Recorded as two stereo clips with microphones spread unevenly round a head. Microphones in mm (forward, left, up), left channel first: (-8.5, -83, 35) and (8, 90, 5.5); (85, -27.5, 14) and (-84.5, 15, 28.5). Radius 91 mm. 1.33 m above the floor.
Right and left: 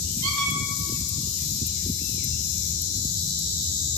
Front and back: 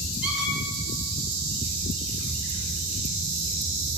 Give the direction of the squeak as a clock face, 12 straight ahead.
9 o'clock.